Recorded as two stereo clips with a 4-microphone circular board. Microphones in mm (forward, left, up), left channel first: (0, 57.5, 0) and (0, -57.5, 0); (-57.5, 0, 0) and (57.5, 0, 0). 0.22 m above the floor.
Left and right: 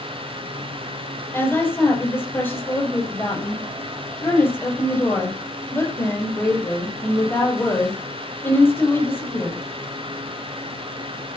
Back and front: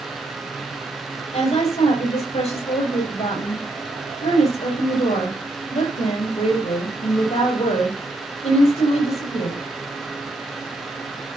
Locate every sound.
1.3 s a woman speaking: 160° left, 7 m